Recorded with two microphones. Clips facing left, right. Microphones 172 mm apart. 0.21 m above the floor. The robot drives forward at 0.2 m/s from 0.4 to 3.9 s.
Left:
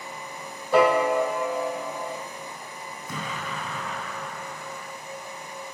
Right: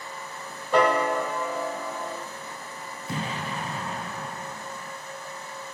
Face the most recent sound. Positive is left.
turn(degrees=-35)  # may be behind; listen again after turning